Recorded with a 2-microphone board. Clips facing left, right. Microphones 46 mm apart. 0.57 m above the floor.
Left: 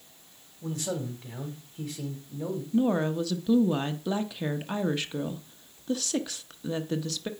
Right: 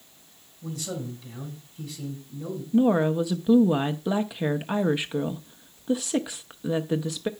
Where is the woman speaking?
15° right (ahead or behind), 0.6 m.